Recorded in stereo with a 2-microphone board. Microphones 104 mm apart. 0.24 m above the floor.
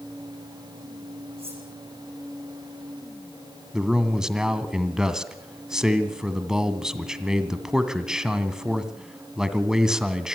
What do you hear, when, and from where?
1.4 s cutlery clinking: 70° right (ahead or behind), 8 m
3.7 s a man speaking: 5° right (ahead or behind), 2 m